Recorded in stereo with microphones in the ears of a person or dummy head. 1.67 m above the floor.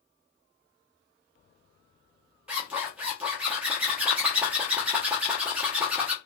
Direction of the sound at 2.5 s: 5° right (ahead or behind).